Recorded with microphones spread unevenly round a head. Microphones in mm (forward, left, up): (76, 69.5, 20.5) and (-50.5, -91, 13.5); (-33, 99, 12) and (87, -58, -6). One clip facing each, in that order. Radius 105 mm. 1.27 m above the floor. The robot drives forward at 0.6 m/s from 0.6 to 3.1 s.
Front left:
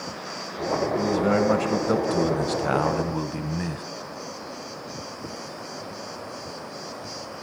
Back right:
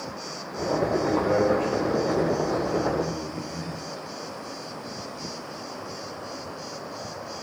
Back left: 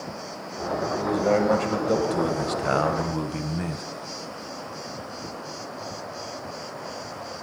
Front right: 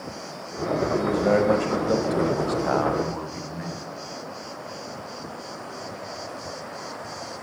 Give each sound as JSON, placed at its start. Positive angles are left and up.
{"t": 1.0, "sound": "a man speaking", "azimuth_deg": 25, "distance_m": 1.5}